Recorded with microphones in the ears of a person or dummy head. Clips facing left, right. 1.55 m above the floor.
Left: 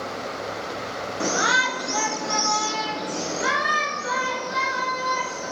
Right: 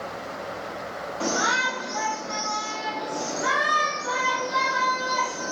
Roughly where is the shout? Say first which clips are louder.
Left 1 dB; left.